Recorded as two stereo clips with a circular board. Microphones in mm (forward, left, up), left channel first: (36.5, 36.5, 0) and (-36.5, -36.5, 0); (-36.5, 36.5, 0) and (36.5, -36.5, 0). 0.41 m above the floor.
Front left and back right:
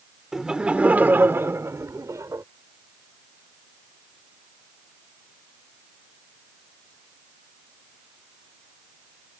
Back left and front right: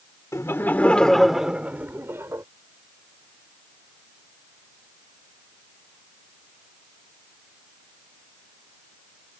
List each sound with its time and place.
0.3 s laughter: 145° left; by 2.4 s 90° right